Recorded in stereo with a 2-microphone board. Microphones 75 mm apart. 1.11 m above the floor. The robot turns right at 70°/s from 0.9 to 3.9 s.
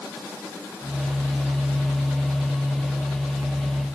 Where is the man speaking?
No man speaking in this recording.